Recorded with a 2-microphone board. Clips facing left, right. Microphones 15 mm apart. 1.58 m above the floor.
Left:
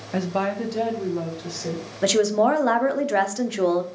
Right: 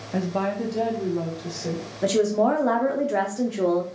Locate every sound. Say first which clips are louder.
0.1 s a woman speaking: left 1 dB; 45° left (ahead or behind), 0.6 m; by 1.9 s 10° left (ahead or behind), 1.9 m
2.0 s a woman speaking: left 2 dB; 45° left (ahead or behind), 0.7 m